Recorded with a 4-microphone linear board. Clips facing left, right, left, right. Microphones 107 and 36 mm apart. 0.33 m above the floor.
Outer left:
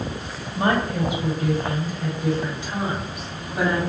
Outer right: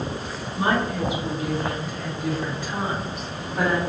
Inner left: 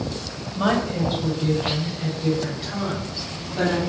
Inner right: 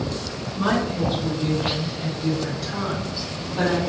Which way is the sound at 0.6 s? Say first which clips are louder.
Outer left 1 dB, inner left 1 dB; 50° left (ahead or behind).